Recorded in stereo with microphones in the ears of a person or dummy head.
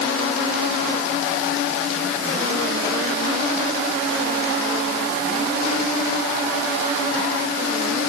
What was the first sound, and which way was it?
Only background noise.